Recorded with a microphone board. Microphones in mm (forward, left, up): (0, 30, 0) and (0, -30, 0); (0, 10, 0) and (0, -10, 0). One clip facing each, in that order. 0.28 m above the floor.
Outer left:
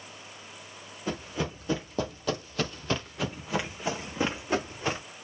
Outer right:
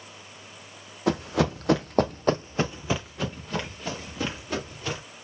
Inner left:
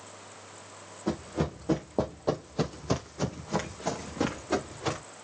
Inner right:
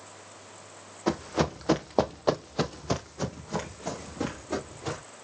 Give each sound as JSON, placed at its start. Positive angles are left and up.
{"t": 1.1, "sound": "running footsteps", "side_deg": -80, "distance_m": 1.0}